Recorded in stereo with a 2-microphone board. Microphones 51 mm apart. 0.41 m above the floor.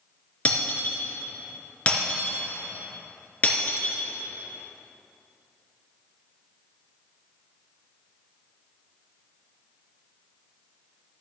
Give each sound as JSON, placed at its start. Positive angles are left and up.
{"t": 0.5, "sound": "breaking glass", "side_deg": 30, "distance_m": 3.0}